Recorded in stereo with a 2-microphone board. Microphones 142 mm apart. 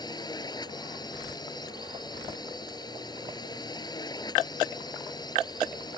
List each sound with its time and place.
0.0 s a drone: 30° left (ahead or behind)